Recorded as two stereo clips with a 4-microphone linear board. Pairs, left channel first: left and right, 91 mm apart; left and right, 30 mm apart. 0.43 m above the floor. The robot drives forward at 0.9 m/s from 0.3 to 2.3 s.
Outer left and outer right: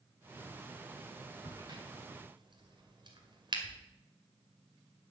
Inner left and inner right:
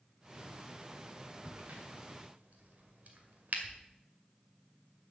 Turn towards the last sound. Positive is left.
turn(degrees=-55)  # may be behind; listen again after turning